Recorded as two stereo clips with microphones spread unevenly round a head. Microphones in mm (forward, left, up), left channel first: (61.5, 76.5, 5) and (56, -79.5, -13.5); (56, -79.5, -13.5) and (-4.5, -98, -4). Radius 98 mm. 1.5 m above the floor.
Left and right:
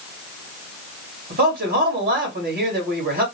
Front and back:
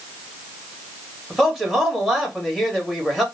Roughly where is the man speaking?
Right.